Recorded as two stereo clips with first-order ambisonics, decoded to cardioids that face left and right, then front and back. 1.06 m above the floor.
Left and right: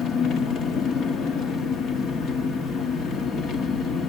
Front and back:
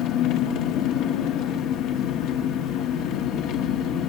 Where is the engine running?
30° left, 0.9 m.